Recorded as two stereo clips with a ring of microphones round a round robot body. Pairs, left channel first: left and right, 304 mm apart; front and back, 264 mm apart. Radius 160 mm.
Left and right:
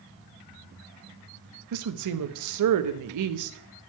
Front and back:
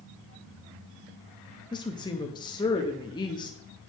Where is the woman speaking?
75° right, 0.8 m.